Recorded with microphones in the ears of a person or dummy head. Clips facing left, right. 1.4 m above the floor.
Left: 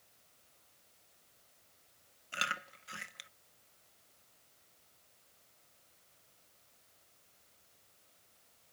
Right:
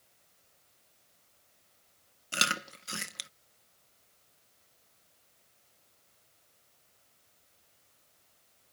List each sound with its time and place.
2.3 s chewing: 55° right (ahead or behind)